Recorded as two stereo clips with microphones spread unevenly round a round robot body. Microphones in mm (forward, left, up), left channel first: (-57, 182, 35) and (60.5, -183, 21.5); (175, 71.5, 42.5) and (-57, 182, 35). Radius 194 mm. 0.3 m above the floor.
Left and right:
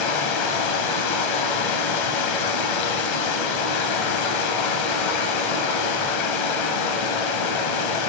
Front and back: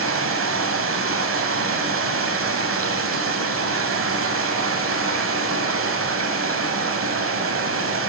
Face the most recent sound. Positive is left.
turn(degrees=115)